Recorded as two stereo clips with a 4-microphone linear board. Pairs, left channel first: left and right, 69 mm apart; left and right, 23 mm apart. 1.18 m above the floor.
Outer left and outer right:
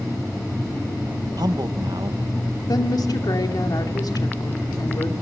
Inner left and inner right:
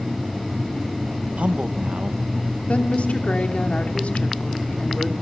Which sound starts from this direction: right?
A man speaking, at 1.4 s.